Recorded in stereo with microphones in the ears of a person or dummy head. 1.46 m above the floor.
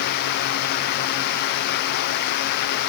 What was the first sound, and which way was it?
Only background noise.